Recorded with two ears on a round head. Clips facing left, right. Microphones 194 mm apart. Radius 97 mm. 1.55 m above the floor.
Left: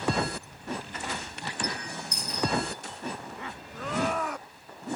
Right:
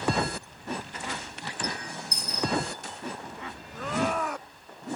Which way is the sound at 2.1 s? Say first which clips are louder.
Left 1 dB; 10° right (ahead or behind).